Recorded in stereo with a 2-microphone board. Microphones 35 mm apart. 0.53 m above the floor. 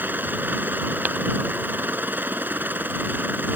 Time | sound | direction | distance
0.0 | a helicopter | 65° right (ahead or behind) | ?
1.1 | tapping | 60° right (ahead or behind) | ?